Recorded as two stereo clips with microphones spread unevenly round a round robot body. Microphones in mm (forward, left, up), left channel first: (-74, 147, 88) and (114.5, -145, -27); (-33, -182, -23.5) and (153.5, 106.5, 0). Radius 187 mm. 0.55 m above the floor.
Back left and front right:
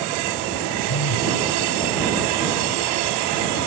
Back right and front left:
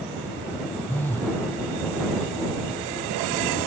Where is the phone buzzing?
150° left.